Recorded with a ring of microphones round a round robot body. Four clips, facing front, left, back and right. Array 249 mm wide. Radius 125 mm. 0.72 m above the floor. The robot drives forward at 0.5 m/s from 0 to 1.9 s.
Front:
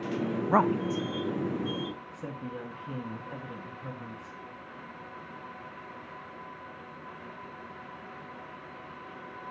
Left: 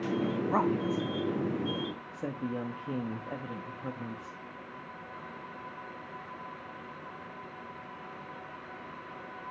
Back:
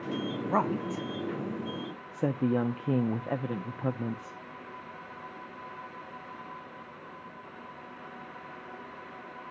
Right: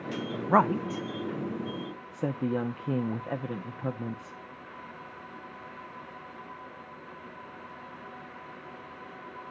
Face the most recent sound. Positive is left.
turn(degrees=-155)